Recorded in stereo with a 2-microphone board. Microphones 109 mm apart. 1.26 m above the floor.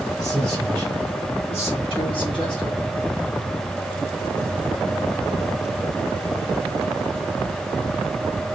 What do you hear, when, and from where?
0.2 s a man speaking: 80° left, 2 m; by 2.8 s 40° left (ahead or behind), 1.3 m